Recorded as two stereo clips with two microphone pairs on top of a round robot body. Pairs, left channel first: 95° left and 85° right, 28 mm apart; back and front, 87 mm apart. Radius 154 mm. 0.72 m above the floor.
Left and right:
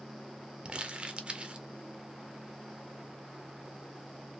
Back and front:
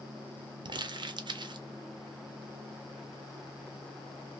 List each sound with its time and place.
0.7 s crumpling: 35° right, 0.5 m